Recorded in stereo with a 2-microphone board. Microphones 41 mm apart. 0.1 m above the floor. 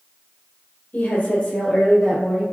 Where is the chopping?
I don't hear chopping.